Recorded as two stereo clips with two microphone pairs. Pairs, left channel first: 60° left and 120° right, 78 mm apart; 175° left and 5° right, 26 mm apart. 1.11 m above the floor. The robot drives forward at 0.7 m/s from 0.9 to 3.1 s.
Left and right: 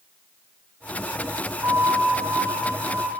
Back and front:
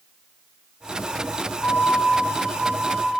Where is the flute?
170° right, 2 m; by 3.2 s 175° right, 3 m.